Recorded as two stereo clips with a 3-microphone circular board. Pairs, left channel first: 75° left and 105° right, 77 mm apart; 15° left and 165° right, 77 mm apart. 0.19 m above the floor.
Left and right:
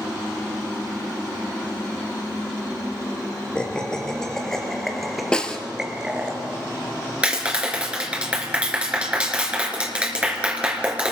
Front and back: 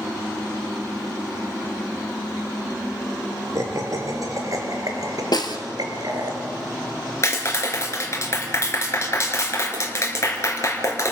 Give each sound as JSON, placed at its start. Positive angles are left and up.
{"t": 3.5, "sound": "laughter", "azimuth_deg": 150, "distance_m": 3.0}
{"t": 5.3, "sound": "a snare drum", "azimuth_deg": -5, "distance_m": 1.8}
{"t": 7.2, "sound": "a clap", "azimuth_deg": -35, "distance_m": 3.0}